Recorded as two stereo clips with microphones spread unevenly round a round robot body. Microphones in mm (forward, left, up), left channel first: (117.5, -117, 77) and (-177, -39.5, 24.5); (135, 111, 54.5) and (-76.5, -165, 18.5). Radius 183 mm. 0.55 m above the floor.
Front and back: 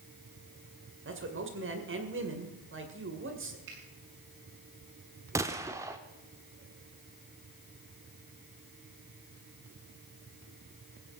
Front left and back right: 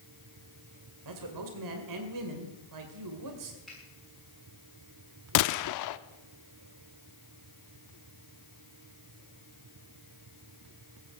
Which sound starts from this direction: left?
A gunshot, at 5.3 s.